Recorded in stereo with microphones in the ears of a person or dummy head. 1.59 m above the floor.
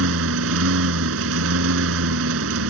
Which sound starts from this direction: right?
A lawn mower, at 0.0 s.